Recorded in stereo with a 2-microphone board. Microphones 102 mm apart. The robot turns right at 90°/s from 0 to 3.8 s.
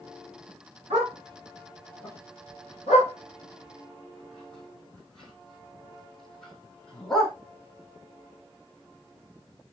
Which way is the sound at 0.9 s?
85° right.